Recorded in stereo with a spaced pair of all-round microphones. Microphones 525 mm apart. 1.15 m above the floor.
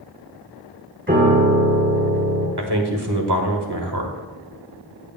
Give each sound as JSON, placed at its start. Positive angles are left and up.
{"t": 1.1, "sound": "a piano", "side_deg": -25, "distance_m": 4.0}
{"t": 2.6, "sound": "a man speaking", "side_deg": -50, "distance_m": 1.6}